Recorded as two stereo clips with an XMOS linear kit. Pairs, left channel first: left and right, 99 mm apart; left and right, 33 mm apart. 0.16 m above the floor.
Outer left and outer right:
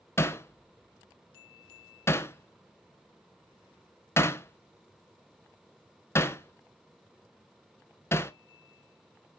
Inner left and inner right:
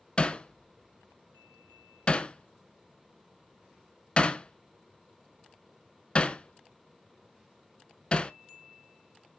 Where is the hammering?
25° left (ahead or behind), 0.7 m.